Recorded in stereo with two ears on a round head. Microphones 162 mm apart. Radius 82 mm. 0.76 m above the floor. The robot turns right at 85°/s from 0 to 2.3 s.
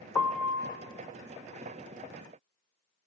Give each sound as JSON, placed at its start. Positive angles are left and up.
{"t": 0.1, "sound": "a piano", "azimuth_deg": 165, "distance_m": 1.0}